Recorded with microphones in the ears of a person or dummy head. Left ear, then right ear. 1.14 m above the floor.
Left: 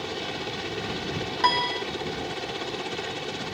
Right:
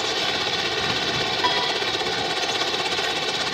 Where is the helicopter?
50° right (ahead or behind).